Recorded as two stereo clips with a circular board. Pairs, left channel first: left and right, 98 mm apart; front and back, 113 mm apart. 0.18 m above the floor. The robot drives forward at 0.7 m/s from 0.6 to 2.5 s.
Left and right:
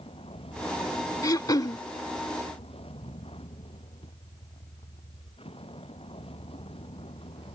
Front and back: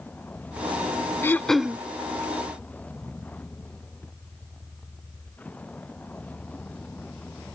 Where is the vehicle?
75° left.